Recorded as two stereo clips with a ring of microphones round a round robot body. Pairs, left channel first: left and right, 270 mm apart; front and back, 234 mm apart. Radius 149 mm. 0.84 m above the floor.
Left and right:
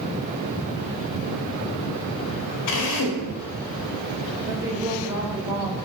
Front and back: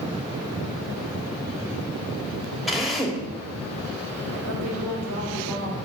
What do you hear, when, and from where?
2.7 s a drill: 90° left, 2 m
4.5 s a woman speaking: 170° right, 3.5 m